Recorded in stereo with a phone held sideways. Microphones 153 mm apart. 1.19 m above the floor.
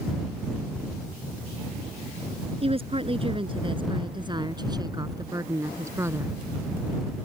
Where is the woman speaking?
35° right (ahead or behind); by 6.4 s 15° right (ahead or behind).